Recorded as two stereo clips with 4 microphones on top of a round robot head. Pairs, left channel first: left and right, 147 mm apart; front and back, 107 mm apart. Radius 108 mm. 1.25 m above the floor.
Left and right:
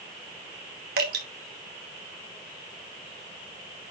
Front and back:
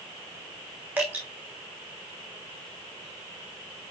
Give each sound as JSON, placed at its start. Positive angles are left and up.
{"t": 1.0, "sound": "dripping", "azimuth_deg": -100, "distance_m": 2.5}